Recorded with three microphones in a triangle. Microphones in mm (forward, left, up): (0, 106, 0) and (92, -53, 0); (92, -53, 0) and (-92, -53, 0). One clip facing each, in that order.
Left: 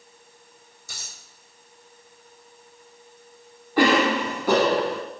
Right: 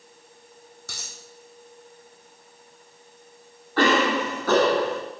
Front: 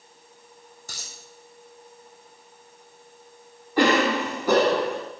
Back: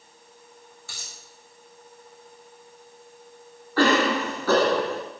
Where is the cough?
55° left, 1.1 m.